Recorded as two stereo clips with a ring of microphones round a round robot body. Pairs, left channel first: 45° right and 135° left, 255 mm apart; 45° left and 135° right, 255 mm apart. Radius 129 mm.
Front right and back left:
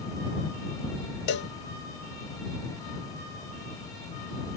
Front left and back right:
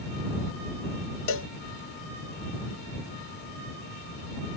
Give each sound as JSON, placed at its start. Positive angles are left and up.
{"t": 1.3, "sound": "a cowbell", "azimuth_deg": 5}